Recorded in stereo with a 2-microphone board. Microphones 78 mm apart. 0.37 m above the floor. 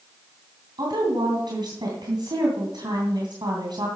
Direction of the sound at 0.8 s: 65° right (ahead or behind).